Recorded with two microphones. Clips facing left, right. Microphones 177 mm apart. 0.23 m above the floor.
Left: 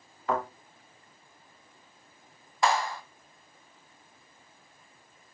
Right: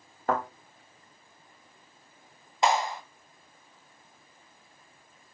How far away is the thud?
About 6 m.